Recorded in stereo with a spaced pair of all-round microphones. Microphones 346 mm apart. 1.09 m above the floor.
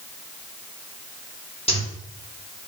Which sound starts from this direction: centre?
A zipper, at 1.7 s.